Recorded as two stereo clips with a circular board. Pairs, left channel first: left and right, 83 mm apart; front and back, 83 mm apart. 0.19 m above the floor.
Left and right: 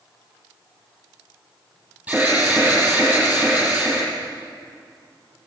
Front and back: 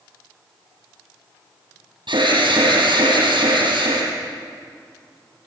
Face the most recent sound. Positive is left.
turn(degrees=-160)